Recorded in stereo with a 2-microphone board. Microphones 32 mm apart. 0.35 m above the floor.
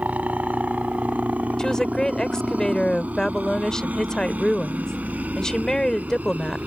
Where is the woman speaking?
20° left (ahead or behind).